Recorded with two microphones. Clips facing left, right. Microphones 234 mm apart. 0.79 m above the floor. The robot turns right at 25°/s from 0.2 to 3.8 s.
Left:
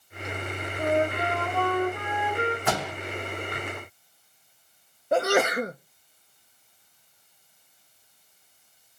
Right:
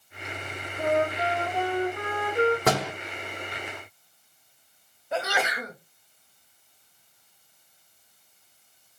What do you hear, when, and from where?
0.8 s a flute: 160° right, 1.3 m; by 2.6 s 115° right, 1.3 m
2.7 s a door slam: 80° right, 1.6 m
5.1 s a sneeze: 50° left (ahead or behind), 0.5 m